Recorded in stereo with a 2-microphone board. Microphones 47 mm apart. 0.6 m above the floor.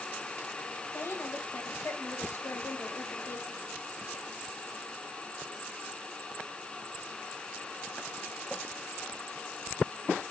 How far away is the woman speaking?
About 2.5 m.